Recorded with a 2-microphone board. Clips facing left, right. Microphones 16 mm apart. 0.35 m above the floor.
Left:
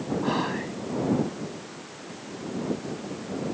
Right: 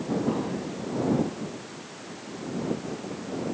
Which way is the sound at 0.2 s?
65° left (ahead or behind).